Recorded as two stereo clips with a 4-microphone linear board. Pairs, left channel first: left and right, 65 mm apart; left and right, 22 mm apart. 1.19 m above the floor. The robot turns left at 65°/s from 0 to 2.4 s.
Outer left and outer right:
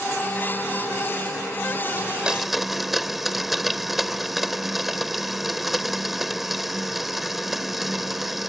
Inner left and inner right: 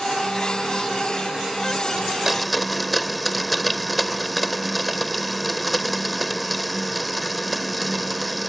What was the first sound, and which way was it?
A blender, 30° right (ahead or behind).